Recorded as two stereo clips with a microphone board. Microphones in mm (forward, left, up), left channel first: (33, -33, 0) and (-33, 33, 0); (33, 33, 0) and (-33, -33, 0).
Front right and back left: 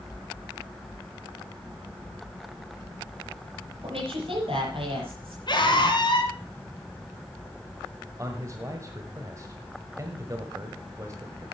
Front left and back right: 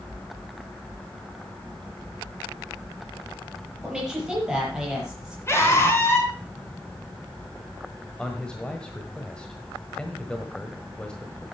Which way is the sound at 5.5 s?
15° right.